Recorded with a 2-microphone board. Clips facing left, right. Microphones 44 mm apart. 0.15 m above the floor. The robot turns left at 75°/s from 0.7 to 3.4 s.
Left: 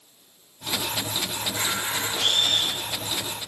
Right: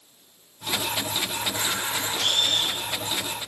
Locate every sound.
1.4 s a camera shutter: 40° right (ahead or behind), 3 m; by 3.5 s 70° left (ahead or behind), 3 m